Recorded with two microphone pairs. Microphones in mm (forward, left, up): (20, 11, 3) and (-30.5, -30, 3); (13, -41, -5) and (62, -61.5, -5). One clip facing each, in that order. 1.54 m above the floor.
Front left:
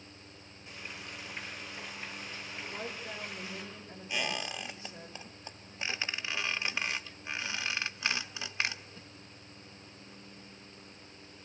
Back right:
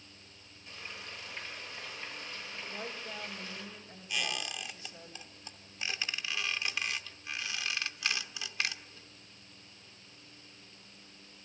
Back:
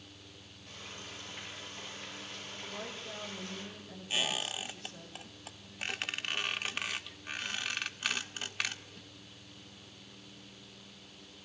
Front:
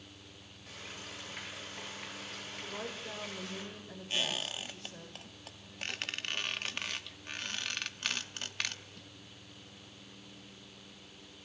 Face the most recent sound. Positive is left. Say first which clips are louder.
# front left 2 dB, back 1 dB
turn(degrees=80)